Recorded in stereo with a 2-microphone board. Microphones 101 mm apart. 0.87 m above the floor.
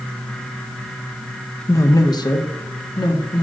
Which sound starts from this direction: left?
A man speaking, at 1.7 s.